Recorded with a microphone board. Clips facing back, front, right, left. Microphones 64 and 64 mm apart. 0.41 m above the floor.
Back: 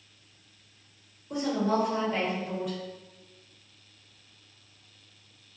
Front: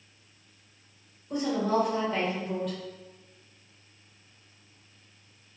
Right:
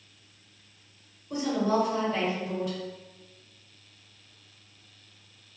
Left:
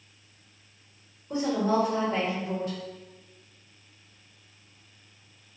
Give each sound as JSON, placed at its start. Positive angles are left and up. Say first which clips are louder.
{"t": 1.3, "sound": "a woman speaking", "louder": "even, left 1 dB", "azimuth_deg": 100, "distance_m": 1.2}